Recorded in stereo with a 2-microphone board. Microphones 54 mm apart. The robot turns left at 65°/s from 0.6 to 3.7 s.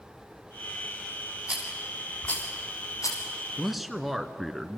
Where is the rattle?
25° right (ahead or behind), 5.5 m; by 3.2 s 85° left, 5.5 m.